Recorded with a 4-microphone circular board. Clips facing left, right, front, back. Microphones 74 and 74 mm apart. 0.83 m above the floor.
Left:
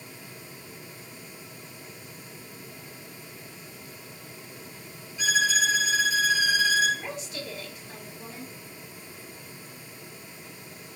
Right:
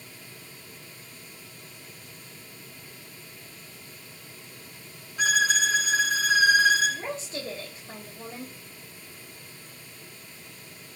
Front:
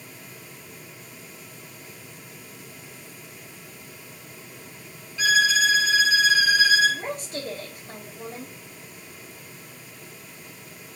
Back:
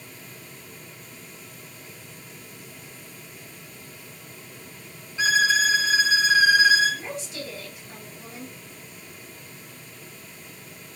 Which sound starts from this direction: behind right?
A violin, at 5.2 s.